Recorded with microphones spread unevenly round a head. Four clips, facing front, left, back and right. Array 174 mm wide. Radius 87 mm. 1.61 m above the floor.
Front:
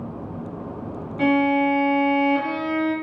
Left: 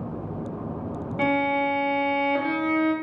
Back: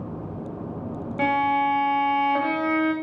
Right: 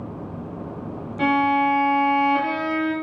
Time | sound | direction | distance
1.2 | a violin | 160° left | 0.5 m